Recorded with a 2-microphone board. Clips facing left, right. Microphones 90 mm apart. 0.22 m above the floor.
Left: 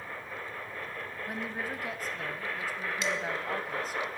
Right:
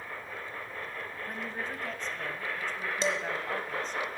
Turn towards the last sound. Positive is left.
turn(degrees=-35)  # may be behind; listen again after turning